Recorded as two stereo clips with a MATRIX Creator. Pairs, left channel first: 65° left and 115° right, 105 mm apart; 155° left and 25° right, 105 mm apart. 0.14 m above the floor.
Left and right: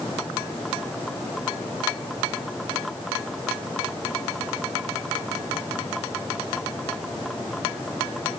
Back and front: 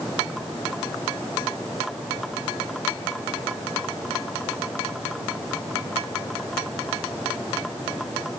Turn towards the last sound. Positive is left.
No sound to turn to.